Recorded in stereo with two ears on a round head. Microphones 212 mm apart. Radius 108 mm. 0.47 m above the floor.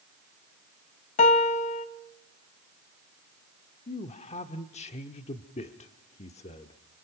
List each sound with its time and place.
1.2 s a piano: 30° left (ahead or behind), 0.9 m
3.9 s a man speaking: 30° left (ahead or behind), 0.9 m